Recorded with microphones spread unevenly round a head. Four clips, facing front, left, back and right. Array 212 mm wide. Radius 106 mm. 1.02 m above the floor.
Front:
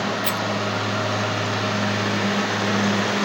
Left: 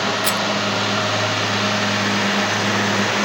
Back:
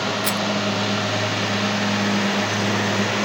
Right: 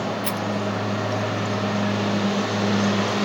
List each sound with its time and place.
0.2 s a rattle: 135° left